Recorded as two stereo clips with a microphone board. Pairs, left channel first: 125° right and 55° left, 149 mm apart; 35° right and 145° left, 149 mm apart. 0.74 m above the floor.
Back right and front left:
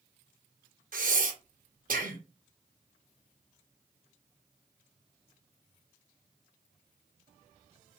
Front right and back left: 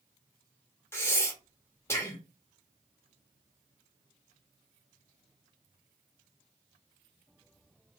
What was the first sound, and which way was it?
Breathing, 40° left.